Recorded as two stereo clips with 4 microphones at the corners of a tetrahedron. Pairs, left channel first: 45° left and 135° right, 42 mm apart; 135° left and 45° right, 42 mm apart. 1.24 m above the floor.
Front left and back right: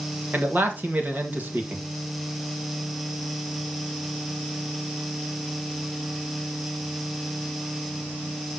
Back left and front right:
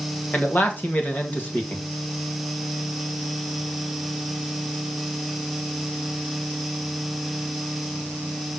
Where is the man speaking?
Straight behind, 2.0 m.